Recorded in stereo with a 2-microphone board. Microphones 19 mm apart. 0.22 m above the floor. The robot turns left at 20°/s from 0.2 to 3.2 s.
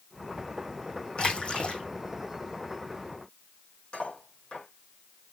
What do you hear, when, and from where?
1.2 s a splash: 60° left (ahead or behind), 1.8 m; by 1.8 s 70° left (ahead or behind), 1.8 m
3.9 s cutlery clinking: 85° left, 6 m